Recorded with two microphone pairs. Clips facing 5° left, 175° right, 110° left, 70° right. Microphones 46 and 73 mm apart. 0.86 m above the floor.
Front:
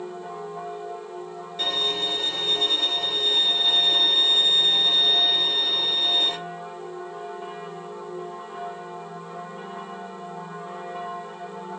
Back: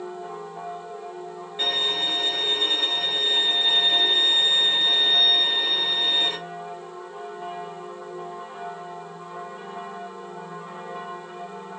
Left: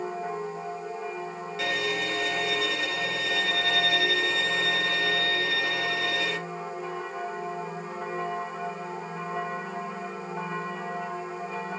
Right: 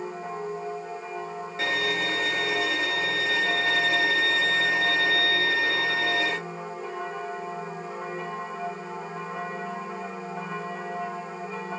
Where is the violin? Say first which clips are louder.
Back 1 dB, right 2 dB; 110° right, 1.2 m.